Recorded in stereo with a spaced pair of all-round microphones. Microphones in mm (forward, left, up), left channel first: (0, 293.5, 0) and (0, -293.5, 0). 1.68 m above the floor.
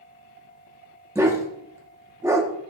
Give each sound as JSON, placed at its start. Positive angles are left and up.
{"t": 1.1, "sound": "a dog barking", "side_deg": -5, "distance_m": 1.2}